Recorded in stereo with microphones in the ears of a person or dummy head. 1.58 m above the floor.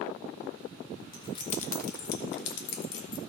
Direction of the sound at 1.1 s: 20° left (ahead or behind).